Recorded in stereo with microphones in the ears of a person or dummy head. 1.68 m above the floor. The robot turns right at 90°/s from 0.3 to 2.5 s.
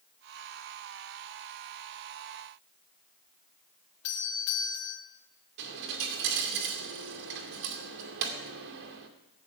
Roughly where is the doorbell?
Left.